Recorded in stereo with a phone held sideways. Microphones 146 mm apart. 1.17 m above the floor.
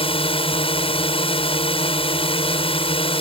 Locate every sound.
0.0 s a drone: 40° left (ahead or behind)